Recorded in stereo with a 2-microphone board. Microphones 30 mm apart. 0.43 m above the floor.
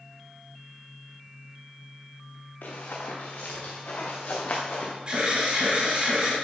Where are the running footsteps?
70° left (ahead or behind), 3 m; by 4.9 s 40° left (ahead or behind), 3 m.